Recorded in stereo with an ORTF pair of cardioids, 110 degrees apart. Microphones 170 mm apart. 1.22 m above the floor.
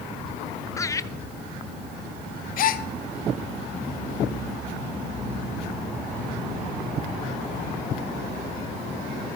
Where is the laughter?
15° left, 0.9 m.